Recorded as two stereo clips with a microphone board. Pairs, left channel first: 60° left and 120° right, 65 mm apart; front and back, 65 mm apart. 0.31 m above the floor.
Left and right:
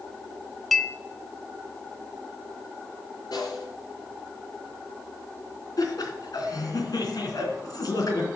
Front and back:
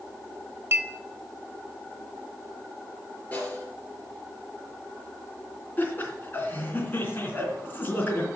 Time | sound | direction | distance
0.7 | a clink | 150° left | 0.9 m
3.3 | a snare drum | 65° left | 4.5 m
5.8 | laughter | 60° left | 3 m